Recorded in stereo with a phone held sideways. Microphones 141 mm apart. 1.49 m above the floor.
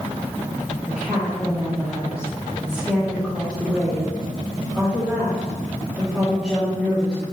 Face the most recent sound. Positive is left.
turn(degrees=-5)  # may be behind; listen again after turning